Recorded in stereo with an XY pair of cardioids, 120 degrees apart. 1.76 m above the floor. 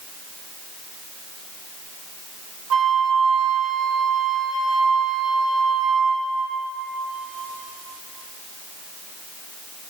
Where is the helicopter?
I don't hear a helicopter.